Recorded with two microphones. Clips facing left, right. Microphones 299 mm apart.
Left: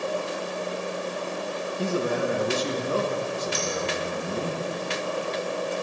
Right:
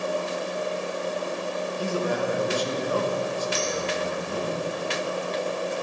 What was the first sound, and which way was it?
A man speaking, 25° left (ahead or behind).